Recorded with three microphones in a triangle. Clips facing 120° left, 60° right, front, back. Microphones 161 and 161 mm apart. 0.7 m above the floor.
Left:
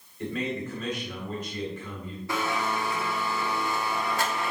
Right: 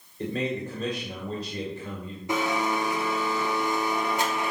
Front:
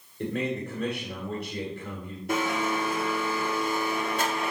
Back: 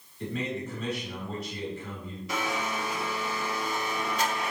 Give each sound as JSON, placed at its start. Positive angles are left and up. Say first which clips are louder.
{"t": 0.2, "sound": "a man speaking", "louder": "right 2 dB, front 3 dB", "azimuth_deg": -10, "distance_m": 2.0}
{"t": 2.3, "sound": "a blender", "louder": "right 3 dB, front 5 dB", "azimuth_deg": 5, "distance_m": 1.4}